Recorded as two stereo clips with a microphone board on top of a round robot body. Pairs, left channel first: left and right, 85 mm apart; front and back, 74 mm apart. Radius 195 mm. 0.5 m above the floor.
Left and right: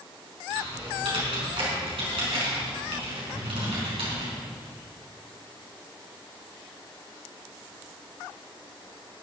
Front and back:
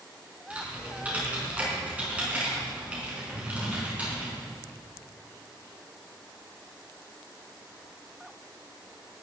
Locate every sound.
0.5 s typing on a keyboard: 105° right, 4.5 m
3.3 s breathing: 45° right, 5 m